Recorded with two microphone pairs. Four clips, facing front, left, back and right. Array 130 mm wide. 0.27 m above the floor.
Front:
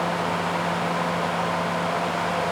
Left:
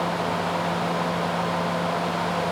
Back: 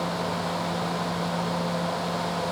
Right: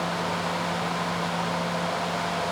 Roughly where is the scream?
No scream in this recording.